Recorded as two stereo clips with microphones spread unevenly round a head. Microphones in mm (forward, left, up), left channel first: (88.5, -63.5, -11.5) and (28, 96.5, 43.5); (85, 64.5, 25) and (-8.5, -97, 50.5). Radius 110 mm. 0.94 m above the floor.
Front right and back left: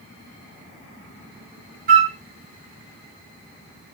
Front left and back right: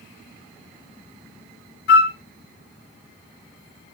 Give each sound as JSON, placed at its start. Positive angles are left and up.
{"t": 1.9, "sound": "a flute", "azimuth_deg": 105, "distance_m": 2.0}